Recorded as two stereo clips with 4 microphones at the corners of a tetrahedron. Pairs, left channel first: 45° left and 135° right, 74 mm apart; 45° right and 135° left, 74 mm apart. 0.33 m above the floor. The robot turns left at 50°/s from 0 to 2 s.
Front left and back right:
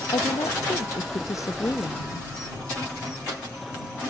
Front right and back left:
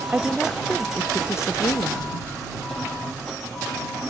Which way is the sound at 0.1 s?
65° left.